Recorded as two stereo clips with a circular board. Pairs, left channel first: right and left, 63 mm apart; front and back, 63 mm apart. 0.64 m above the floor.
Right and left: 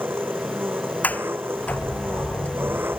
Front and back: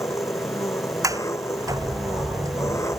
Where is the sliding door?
155° right.